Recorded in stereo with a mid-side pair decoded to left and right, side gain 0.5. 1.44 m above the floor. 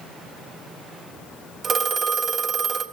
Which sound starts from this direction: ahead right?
A phone ringing, at 1.6 s.